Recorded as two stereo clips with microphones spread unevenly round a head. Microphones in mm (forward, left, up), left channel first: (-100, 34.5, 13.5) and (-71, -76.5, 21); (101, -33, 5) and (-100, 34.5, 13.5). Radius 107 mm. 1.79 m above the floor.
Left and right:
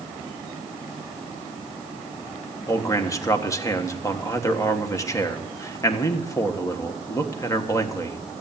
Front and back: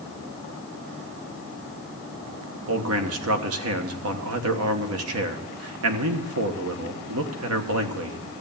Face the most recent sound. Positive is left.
turn(degrees=165)